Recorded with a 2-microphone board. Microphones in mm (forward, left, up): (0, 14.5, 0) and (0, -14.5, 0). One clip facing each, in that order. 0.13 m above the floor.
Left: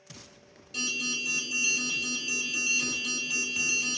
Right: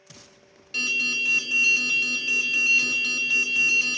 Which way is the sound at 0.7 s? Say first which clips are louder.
Right 7 dB; 55° right (ahead or behind).